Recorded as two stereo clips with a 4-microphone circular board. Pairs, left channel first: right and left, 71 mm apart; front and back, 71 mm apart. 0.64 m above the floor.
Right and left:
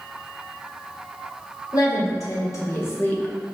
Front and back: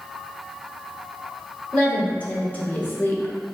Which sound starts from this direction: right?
A woman speaking, at 1.7 s.